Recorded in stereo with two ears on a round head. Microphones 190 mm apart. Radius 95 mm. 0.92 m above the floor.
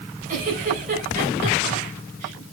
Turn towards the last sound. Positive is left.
turn(degrees=-40)  # may be behind; listen again after turning